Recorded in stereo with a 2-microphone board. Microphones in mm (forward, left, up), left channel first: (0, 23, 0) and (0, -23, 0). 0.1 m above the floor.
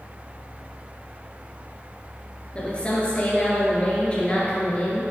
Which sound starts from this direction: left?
A woman speaking, at 2.5 s.